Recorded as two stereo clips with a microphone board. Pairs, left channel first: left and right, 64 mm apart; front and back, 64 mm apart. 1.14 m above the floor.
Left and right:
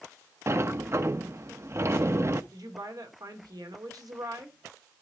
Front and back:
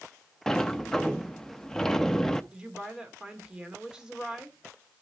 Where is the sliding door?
75° right, 0.6 m.